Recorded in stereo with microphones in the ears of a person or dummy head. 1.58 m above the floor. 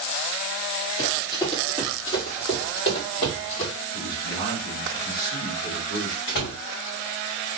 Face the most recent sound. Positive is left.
turn(degrees=55)  # may be behind; listen again after turning